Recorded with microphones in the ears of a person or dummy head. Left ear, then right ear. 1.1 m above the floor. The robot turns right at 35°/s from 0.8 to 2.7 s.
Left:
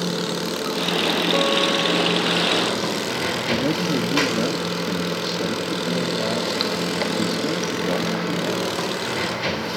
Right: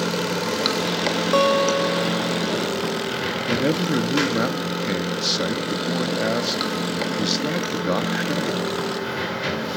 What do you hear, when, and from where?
0.0 s running water: 60° right, 3 m; by 9.8 s 10° left, 3 m
1.3 s a guitar: 45° right, 1.0 m; by 2.5 s straight ahead, 1.0 m
3.5 s a man speaking: 35° right (ahead or behind), 2 m